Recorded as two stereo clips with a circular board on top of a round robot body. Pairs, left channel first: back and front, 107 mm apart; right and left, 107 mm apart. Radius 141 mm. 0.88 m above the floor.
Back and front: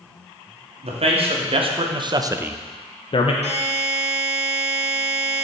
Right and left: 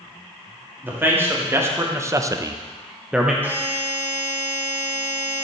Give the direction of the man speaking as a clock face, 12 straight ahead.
11 o'clock.